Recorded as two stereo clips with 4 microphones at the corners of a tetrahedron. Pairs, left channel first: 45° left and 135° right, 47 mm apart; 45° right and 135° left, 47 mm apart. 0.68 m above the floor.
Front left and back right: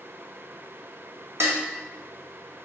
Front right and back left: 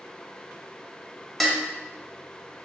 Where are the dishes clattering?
130° right, 0.7 m.